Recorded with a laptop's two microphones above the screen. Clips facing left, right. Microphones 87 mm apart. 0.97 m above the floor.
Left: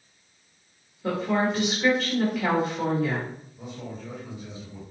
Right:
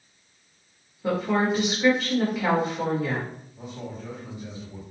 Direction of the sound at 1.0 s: 10° right (ahead or behind).